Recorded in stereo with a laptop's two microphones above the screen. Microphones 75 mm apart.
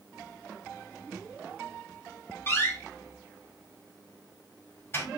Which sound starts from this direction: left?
A door slam, at 2.5 s.